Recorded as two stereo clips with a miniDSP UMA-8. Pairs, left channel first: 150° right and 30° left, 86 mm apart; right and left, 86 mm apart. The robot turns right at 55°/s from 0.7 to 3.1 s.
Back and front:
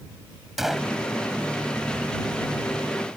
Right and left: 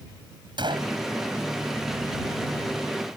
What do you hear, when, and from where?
0.6 s a gunshot: 115° left; by 0.9 s 130° left